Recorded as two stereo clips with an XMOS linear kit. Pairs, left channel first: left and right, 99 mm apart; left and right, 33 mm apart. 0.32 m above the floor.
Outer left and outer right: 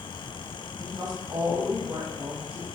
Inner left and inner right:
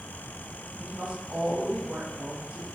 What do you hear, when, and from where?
0.8 s a woman speaking: 30° right (ahead or behind), 1.5 m; by 2.6 s 65° right (ahead or behind), 3 m